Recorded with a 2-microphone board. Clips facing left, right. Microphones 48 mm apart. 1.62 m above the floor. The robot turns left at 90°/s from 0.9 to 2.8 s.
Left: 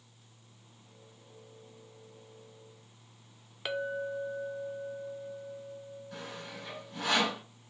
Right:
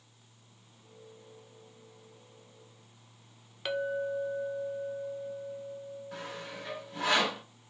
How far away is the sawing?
About 3 m.